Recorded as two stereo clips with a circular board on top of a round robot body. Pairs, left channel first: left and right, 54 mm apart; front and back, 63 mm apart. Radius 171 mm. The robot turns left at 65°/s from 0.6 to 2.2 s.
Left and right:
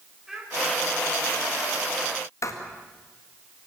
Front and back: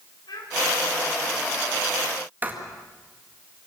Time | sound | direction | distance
0.3 | a child speaking | 5° right | 4.5 m
2.4 | writing | 115° left | 2 m